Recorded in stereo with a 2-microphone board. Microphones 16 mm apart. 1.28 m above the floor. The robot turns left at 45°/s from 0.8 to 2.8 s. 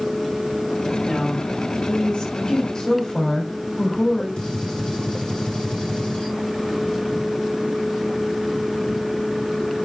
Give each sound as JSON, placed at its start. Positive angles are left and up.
{"t": 1.0, "sound": "a woman speaking", "azimuth_deg": 145, "distance_m": 5.5}
{"t": 2.8, "sound": "a woman speaking", "side_deg": 45, "distance_m": 4.5}
{"t": 4.4, "sound": "a gunshot", "side_deg": 75, "distance_m": 4.0}